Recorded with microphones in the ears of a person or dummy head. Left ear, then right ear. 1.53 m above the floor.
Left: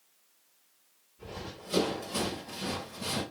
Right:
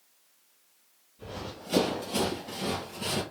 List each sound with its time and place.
1.2 s running footsteps: 5° right (ahead or behind), 1.9 m; by 3.2 s 25° right (ahead or behind), 1.6 m